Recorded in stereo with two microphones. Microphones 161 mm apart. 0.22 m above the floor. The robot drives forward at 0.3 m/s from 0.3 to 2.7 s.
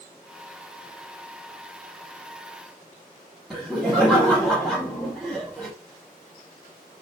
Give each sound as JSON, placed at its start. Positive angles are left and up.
{"t": 3.5, "sound": "laughter", "side_deg": 0, "distance_m": 1.4}